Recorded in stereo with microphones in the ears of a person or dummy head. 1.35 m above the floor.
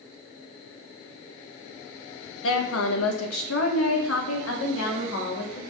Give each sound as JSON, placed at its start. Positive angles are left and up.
{"t": 2.4, "sound": "a woman speaking", "side_deg": 80, "distance_m": 1.7}